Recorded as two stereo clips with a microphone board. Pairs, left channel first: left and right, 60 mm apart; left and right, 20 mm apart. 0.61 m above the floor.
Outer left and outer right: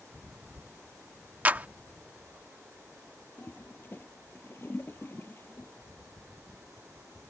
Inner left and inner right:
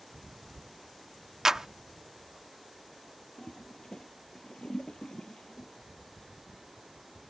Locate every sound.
1.4 s a clap: 30° right (ahead or behind)
3.4 s a toilet flushing: 35° left (ahead or behind)